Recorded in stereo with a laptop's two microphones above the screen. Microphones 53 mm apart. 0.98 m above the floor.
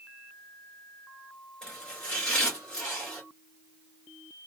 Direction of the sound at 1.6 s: 15° left (ahead or behind).